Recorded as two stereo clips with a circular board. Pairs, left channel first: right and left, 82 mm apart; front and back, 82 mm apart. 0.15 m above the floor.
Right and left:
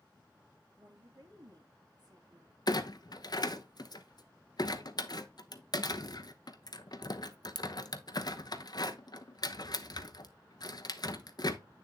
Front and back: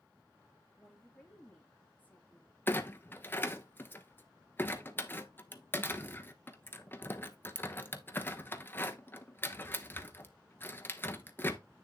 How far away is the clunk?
About 0.9 m.